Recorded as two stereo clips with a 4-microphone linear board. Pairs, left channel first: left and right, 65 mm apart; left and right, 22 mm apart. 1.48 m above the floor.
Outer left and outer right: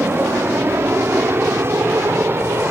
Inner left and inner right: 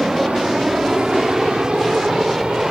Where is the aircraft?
40° right (ahead or behind); by 2.7 s 35° right (ahead or behind).